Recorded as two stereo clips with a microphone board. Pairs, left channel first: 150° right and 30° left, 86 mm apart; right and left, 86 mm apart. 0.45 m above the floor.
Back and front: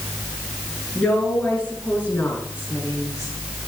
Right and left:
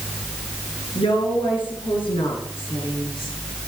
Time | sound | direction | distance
0.9 | a woman speaking | 70° right | 8 m